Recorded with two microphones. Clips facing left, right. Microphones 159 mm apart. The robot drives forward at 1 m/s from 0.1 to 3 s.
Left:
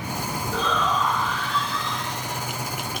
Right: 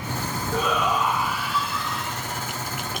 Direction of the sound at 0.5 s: 10° right (ahead or behind).